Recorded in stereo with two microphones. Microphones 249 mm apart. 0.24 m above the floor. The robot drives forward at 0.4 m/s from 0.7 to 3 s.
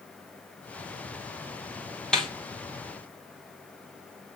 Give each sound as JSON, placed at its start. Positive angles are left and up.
{"t": 2.1, "sound": "a snare drum", "side_deg": 0, "distance_m": 1.8}